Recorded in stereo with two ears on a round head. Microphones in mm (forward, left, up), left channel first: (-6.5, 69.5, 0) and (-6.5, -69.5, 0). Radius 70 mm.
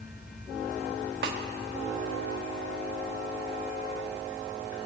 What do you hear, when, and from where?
1.2 s a snare drum: 65° right (ahead or behind), 0.9 m